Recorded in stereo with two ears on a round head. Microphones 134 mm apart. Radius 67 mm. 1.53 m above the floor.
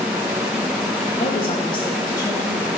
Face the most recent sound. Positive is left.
turn(degrees=25)  # may be behind; listen again after turning